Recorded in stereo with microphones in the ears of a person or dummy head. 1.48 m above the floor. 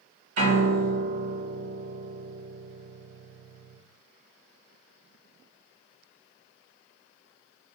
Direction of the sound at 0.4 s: 55° right (ahead or behind).